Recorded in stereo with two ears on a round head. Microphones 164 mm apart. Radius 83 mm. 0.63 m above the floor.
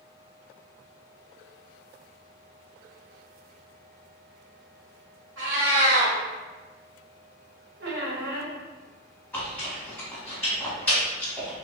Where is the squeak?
65° right (ahead or behind), 1.0 m.